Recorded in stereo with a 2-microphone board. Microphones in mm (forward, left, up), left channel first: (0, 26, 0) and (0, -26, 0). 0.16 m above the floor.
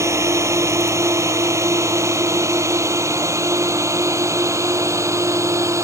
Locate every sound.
0.0 s a drone: 70° right (ahead or behind)